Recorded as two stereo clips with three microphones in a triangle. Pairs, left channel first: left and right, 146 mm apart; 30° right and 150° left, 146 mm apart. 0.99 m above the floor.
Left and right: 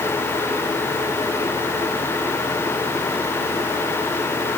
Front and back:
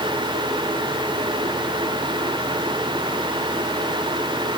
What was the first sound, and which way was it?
Only background noise.